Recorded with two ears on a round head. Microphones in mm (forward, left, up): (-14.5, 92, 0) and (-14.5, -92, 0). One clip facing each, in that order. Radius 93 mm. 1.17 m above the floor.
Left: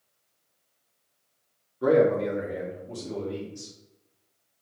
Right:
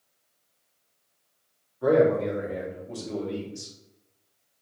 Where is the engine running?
No engine running in this recording.